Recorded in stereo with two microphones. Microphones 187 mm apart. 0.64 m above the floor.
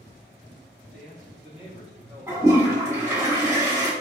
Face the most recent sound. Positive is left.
turn(degrees=-15)  # may be behind; listen again after turning